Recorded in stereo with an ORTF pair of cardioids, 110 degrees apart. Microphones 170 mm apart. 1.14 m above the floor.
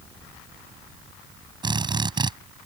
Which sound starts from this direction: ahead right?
A drill, at 1.6 s.